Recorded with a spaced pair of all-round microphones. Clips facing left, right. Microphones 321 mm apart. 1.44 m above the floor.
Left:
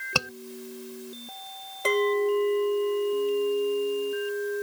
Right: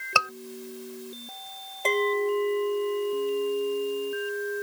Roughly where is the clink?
Centre.